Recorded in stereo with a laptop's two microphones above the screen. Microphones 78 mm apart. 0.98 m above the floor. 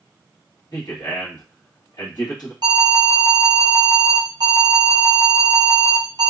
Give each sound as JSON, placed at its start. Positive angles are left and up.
{"t": 0.7, "sound": "a man speaking", "side_deg": 55, "distance_m": 1.2}
{"t": 2.6, "sound": "an alarm", "side_deg": -60, "distance_m": 0.7}